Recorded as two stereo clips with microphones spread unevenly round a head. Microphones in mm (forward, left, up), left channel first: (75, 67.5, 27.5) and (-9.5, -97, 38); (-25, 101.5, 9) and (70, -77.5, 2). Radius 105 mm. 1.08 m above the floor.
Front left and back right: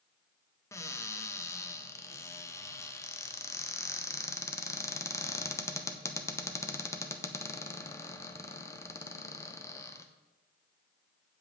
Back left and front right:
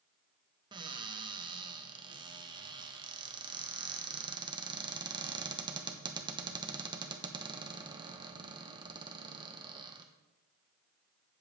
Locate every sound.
0.7 s a cupboard door: 5° right, 0.9 m